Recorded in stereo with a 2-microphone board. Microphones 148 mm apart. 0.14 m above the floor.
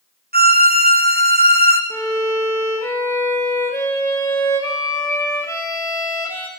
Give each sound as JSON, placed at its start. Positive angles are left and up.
{"t": 0.3, "sound": "a violin", "side_deg": -85, "distance_m": 1.5}
{"t": 1.9, "sound": "a violin", "side_deg": 15, "distance_m": 3.0}